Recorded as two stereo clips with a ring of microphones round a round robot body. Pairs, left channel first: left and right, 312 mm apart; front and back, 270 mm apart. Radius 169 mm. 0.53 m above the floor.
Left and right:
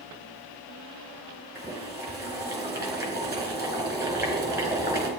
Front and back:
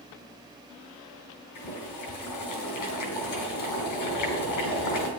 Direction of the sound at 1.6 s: 10° right.